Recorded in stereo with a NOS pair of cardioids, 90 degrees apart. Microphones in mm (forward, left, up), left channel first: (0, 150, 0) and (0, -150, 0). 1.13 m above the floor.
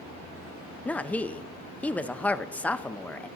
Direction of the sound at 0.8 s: 5° left.